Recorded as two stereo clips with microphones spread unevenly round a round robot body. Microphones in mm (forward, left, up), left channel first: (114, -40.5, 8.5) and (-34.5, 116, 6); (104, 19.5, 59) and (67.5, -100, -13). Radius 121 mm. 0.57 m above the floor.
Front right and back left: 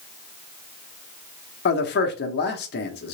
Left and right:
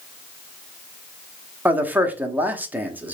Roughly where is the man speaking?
Right.